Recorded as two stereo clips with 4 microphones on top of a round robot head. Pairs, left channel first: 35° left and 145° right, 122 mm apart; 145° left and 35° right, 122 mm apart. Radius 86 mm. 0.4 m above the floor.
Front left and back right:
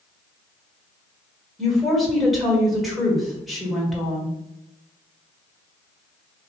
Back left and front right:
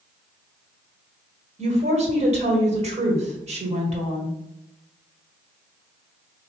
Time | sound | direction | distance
1.6 | a woman speaking | 55° right | 1.6 m